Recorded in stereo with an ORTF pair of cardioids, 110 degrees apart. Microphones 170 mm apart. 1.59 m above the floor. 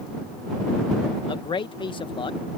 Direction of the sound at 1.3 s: 30° left.